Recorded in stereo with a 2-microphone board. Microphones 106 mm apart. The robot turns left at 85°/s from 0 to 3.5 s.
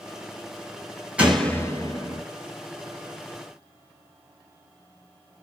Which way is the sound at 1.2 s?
170° right.